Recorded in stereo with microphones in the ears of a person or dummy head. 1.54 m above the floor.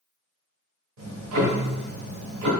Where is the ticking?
85° right, 1.1 m.